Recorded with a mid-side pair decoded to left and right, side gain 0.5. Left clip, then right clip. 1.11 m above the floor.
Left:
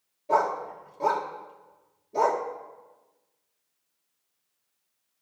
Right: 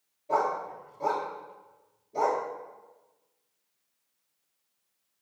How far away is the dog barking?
About 1.6 m.